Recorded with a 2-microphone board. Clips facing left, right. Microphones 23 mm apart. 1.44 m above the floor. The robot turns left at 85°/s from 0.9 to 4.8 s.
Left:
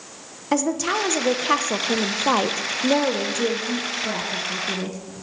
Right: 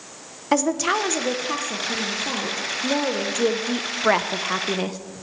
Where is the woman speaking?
165° right, 0.8 m; by 5.0 s 135° right, 0.8 m.